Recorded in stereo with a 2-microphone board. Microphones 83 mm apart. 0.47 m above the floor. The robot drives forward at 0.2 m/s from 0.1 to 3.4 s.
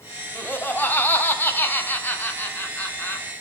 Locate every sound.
0.3 s laughter: 25° left (ahead or behind), 0.8 m; by 3.3 s 20° left (ahead or behind), 0.9 m